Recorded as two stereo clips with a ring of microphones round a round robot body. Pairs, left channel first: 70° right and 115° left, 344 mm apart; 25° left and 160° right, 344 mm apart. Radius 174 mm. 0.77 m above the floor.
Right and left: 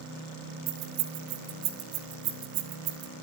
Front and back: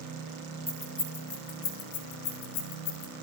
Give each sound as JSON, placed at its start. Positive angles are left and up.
{"t": 0.7, "sound": "keys jangling", "azimuth_deg": 105, "distance_m": 1.8}